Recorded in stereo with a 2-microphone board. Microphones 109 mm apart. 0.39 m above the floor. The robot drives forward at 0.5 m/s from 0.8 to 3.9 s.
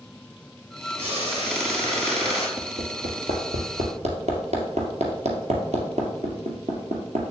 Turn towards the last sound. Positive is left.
turn(degrees=-85)